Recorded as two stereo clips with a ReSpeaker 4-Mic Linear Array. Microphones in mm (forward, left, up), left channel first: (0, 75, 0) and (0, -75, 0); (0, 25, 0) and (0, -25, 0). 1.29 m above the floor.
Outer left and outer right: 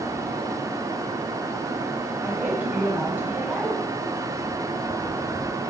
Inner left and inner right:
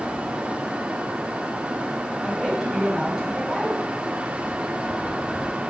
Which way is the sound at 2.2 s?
10° right (ahead or behind).